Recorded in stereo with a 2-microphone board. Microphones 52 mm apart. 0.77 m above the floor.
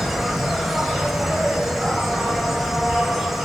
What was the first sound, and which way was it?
An insect, centre (ahead or behind).